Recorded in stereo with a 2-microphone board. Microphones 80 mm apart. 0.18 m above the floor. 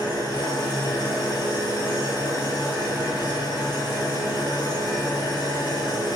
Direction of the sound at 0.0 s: 50° left (ahead or behind).